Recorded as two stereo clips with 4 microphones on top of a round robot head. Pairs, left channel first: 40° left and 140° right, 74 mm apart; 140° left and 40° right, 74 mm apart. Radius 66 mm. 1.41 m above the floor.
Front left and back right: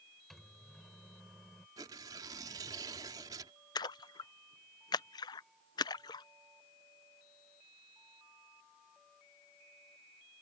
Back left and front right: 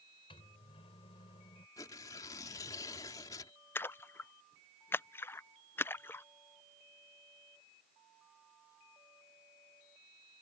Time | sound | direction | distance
0.3 | a microwave | 130° left | ?
1.8 | tearing paper | straight behind | ?
3.8 | a splash | 75° left | ?